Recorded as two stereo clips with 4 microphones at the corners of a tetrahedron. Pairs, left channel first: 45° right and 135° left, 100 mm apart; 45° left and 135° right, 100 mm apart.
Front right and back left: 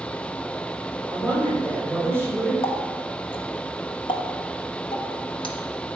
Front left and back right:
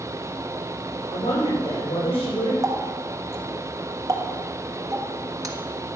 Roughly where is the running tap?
Right.